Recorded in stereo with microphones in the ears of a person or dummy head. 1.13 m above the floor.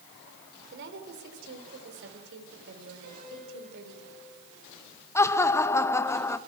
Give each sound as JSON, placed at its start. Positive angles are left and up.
{"t": 0.7, "sound": "a woman speaking", "side_deg": -60, "distance_m": 3.5}
{"t": 3.0, "sound": "a piano", "side_deg": -50, "distance_m": 9.0}
{"t": 5.2, "sound": "laughter", "side_deg": 15, "distance_m": 0.6}